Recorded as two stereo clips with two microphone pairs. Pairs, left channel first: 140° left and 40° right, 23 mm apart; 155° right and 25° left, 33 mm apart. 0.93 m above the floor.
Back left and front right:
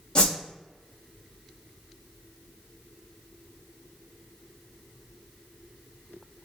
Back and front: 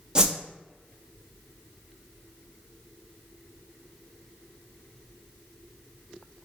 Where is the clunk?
No clunk in this recording.